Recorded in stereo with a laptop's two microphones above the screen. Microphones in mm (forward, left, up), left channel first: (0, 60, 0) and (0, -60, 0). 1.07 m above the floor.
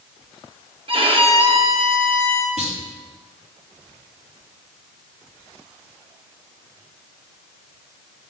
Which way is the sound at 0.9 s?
45° right (ahead or behind).